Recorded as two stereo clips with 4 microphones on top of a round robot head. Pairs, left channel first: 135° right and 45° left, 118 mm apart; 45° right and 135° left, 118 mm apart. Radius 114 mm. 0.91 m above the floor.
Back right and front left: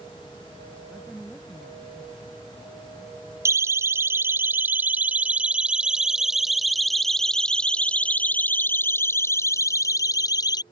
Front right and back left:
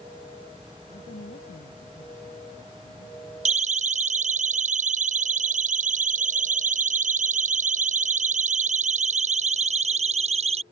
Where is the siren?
115° left; by 10.6 s 170° left.